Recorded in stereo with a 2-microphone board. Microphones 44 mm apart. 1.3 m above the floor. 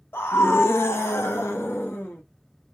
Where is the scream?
65° left (ahead or behind), 0.9 m; by 2.2 s 60° left (ahead or behind), 1.4 m.